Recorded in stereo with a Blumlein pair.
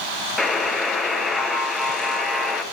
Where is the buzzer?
5° left, 1.6 m.